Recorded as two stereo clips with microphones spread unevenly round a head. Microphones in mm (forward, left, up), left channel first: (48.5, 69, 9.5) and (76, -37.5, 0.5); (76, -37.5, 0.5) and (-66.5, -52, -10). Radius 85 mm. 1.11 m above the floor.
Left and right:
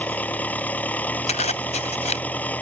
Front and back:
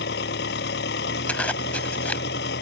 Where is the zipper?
85° left.